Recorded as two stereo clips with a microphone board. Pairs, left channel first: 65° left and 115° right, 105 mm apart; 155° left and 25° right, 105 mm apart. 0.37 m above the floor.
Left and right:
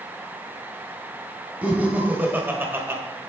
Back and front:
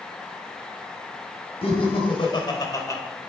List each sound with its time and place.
1.6 s laughter: 170° left, 2.5 m; by 3.0 s 160° right, 1.5 m